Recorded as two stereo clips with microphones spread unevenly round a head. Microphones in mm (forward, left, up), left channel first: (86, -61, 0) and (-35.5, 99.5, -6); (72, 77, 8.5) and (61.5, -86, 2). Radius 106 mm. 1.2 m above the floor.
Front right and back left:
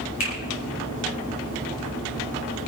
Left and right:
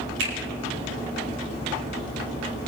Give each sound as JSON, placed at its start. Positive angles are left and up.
{"t": 0.2, "sound": "a finger snap", "azimuth_deg": -105, "distance_m": 4.5}